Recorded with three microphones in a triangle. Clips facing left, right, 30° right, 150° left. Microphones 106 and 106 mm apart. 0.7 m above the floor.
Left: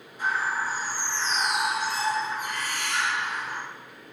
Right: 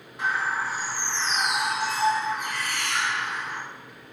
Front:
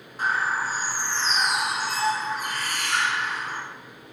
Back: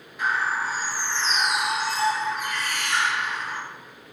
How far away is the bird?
About 3 m.